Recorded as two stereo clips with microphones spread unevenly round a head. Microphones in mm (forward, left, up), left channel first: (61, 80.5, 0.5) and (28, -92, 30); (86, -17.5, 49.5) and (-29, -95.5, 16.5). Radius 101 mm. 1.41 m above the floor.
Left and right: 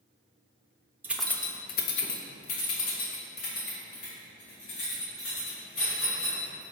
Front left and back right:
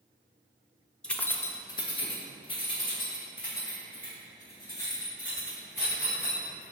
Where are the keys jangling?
35° right, 0.7 m; by 6.6 s 105° left, 4.5 m.